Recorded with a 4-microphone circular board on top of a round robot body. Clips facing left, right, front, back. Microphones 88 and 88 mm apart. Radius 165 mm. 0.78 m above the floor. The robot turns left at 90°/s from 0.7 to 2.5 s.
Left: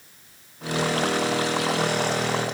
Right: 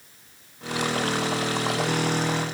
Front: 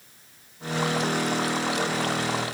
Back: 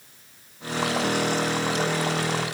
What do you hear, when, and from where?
Only background noise.